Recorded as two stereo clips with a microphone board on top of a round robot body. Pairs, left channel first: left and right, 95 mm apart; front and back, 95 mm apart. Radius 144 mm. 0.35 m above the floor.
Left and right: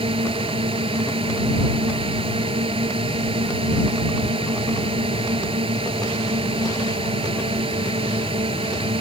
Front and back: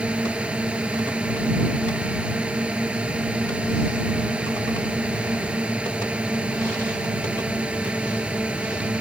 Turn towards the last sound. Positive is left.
turn(degrees=-100)